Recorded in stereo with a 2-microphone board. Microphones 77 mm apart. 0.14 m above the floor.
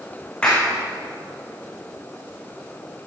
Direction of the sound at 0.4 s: 15° left (ahead or behind).